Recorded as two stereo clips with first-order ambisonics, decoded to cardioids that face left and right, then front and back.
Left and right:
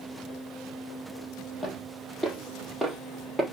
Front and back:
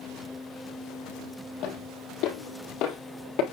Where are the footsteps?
15° left, 4 m; by 3.4 s straight ahead, 3 m.